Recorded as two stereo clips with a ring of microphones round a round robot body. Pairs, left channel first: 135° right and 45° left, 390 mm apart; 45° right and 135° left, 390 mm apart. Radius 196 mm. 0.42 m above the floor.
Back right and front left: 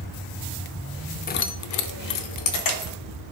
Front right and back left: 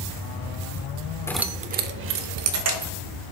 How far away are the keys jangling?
About 0.5 m.